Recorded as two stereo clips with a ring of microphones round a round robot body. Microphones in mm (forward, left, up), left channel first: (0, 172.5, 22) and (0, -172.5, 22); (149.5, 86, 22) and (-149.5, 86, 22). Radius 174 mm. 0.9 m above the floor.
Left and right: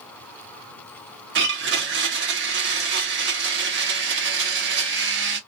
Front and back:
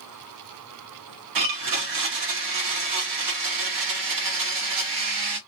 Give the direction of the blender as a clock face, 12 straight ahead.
5 o'clock.